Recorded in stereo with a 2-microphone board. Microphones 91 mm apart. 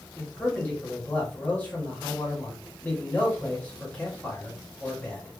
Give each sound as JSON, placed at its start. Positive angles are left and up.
{"t": 0.2, "sound": "a man speaking", "side_deg": 15, "distance_m": 1.8}